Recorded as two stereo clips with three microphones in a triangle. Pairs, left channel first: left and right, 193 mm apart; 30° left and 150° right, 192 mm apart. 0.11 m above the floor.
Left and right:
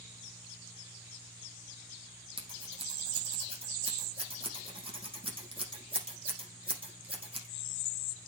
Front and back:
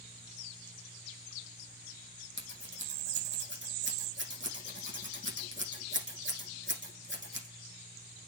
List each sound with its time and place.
2.4 s scissors: 150° right, 5.5 m